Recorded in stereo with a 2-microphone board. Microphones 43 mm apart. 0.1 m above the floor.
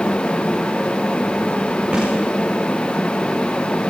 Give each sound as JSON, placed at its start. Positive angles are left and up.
{"t": 1.9, "sound": "a snare drum", "side_deg": -25, "distance_m": 10.0}